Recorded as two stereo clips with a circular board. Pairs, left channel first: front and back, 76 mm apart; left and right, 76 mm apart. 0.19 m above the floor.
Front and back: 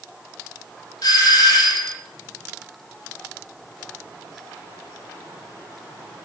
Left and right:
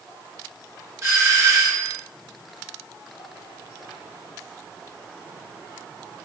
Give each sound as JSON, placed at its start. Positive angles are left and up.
{"t": 1.0, "sound": "a doorbell", "azimuth_deg": -35, "distance_m": 7.5}